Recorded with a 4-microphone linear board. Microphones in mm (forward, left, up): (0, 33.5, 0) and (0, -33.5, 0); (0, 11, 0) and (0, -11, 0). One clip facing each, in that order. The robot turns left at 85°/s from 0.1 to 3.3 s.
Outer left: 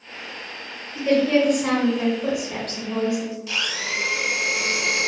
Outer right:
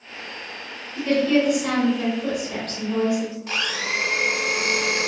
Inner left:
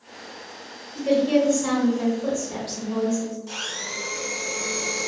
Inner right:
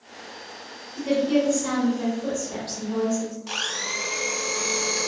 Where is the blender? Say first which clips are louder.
Outer right 2 dB, inner right 3 dB; 40° right (ahead or behind), 0.6 m.